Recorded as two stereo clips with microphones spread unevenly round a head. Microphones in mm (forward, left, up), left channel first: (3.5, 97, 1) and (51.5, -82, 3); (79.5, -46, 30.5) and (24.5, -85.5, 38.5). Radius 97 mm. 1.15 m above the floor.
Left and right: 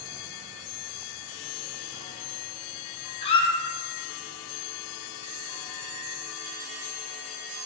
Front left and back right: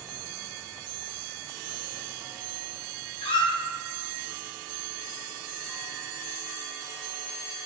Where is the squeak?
40° left, 1.1 m.